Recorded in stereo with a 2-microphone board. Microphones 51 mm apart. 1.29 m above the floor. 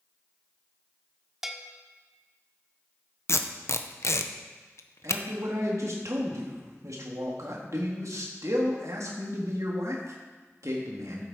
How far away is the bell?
About 0.9 m.